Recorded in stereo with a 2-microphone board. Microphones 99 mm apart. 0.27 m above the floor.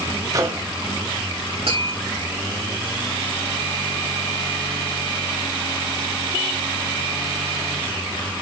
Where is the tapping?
80° right, 5.5 m.